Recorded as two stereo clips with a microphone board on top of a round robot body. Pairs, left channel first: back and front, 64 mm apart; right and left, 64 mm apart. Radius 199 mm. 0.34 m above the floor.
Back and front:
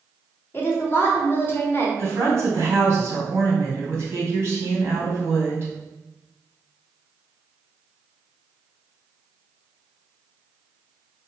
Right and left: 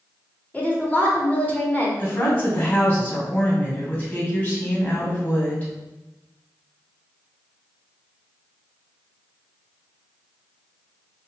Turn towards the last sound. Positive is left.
turn(degrees=-35)